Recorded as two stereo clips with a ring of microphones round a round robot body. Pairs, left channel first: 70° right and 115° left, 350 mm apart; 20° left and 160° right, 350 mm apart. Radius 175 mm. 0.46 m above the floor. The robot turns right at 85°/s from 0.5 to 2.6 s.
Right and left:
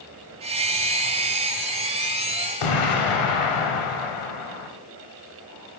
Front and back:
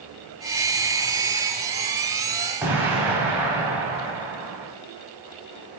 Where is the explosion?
75° right, 0.8 m.